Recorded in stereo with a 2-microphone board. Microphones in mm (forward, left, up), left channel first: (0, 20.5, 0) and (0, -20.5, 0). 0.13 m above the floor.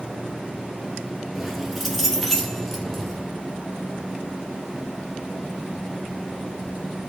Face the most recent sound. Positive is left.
turn(degrees=10)  # may be behind; listen again after turning